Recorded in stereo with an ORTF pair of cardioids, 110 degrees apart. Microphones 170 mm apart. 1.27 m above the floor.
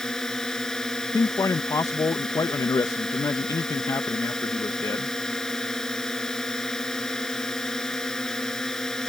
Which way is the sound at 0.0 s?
5° left.